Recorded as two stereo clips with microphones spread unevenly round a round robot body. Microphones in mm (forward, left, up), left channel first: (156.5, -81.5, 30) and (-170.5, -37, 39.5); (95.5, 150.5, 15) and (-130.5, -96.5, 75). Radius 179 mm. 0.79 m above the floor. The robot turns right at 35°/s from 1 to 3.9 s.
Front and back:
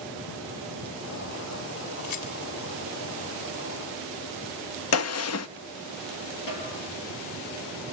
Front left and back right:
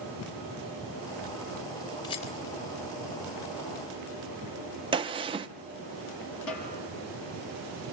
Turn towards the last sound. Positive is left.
turn(degrees=10)